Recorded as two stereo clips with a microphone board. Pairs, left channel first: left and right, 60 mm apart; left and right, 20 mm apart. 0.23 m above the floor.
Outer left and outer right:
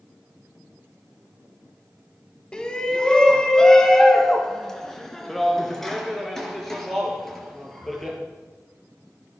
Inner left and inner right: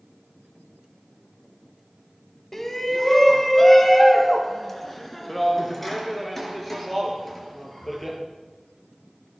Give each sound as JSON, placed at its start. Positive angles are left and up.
{"t": 2.5, "sound": "a shout", "side_deg": 15, "distance_m": 1.4}